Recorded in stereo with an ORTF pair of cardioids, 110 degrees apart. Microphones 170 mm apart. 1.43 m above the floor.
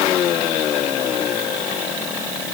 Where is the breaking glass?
I don't hear breaking glass.